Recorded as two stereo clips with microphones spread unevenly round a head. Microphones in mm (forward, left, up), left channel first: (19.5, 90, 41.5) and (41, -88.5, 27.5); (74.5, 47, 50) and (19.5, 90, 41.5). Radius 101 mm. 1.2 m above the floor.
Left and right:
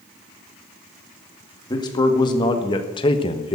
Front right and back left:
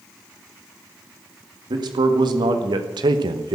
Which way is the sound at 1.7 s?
165° left.